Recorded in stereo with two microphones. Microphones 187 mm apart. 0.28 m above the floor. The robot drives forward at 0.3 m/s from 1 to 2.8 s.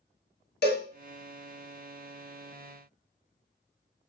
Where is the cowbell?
60° left (ahead or behind), 0.6 m.